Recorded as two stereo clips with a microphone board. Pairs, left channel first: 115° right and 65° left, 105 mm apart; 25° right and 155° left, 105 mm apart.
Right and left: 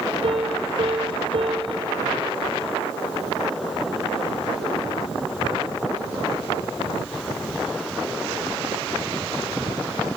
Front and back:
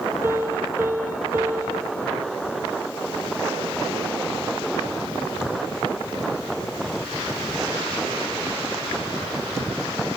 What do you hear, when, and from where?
0.2 s a piano: 90° left, 1.6 m